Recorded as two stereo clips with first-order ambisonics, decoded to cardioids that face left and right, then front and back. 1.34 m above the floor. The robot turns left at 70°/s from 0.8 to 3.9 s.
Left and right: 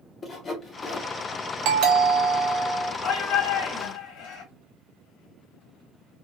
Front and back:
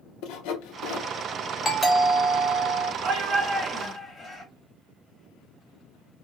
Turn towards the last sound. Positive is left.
turn(degrees=75)